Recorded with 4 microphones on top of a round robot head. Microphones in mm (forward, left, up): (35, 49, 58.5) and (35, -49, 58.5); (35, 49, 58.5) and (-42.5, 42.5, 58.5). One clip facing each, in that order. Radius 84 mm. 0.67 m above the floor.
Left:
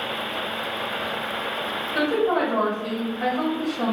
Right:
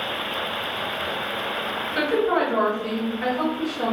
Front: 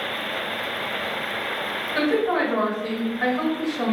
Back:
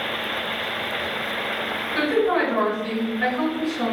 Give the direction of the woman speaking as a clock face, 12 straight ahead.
10 o'clock.